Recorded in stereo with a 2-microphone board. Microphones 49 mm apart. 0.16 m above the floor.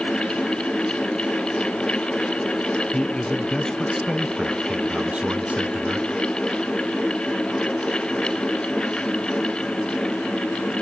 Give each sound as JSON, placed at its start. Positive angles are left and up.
{"t": 2.9, "sound": "a man speaking", "side_deg": 25, "distance_m": 1.2}